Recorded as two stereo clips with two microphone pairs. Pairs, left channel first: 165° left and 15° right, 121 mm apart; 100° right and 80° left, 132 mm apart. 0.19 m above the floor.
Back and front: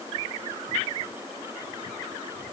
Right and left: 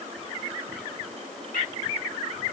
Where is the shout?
No shout in this recording.